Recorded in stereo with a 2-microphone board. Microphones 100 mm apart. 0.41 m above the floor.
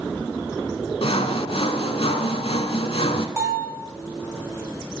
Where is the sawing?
75° left (ahead or behind), 0.8 m.